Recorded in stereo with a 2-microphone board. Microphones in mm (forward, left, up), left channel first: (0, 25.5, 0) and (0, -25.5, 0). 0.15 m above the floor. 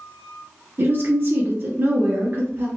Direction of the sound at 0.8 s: 45° right (ahead or behind).